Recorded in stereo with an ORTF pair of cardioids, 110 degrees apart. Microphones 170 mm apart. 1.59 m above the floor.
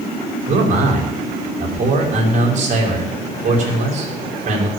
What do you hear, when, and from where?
0.5 s a man speaking: 45° right, 6 m